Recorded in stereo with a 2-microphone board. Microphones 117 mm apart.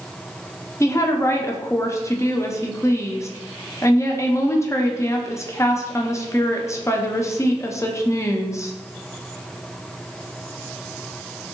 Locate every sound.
0.8 s a woman speaking: 25° left (ahead or behind), 0.6 m